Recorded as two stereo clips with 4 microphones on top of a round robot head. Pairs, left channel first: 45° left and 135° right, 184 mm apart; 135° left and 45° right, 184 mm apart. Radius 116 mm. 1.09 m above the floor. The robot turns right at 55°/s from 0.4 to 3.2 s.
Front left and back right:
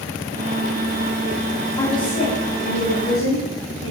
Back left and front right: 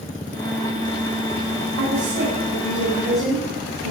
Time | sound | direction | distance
1.8 | a woman speaking | 30° right | 9.5 m